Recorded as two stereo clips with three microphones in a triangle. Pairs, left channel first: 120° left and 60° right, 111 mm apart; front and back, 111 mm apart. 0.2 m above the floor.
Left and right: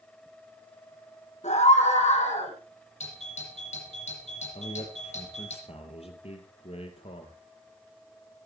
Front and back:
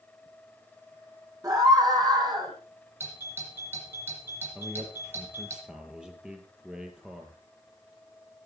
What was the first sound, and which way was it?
A scream, 120° left.